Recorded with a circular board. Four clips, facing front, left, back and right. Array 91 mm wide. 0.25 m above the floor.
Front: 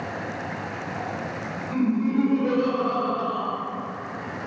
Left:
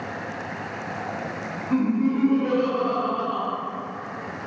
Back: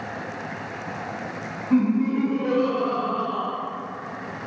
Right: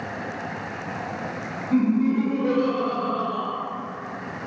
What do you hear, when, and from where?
1.7 s laughter: 130° left, 1.5 m